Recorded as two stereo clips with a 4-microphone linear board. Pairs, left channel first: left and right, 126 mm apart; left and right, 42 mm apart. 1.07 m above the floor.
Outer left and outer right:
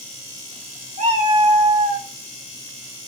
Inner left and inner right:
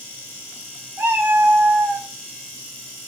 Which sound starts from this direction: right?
A cat meowing, at 1.0 s.